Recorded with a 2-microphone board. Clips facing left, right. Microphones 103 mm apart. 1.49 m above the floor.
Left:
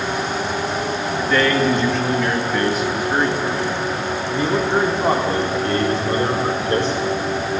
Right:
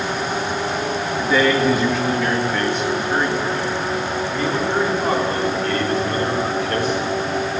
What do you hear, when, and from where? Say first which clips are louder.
1.2 s a man speaking: right 1 dB; 10° right (ahead or behind), 2 m; by 7.6 s 25° left (ahead or behind), 5 m